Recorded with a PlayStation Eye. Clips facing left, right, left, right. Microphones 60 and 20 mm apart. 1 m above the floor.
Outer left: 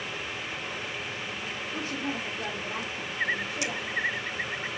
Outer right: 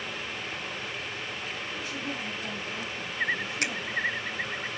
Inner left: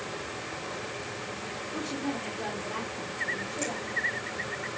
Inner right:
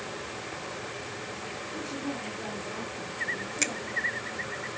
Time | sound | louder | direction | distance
1.7 | a woman speaking | outer left 5 dB, inner left 3 dB | 45° left (ahead or behind) | 2.5 m
3.6 | a finger snap | outer right 4 dB, inner right 5 dB | 55° right (ahead or behind) | 0.7 m